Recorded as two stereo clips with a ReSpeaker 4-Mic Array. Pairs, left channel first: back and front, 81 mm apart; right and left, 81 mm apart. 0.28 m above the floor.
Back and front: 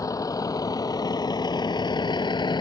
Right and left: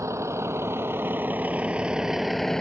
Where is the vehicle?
140° left; by 2.6 s 175° right.